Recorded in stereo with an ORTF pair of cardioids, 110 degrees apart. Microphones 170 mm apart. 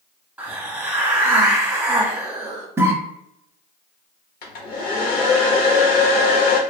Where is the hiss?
10° right, 1.0 m.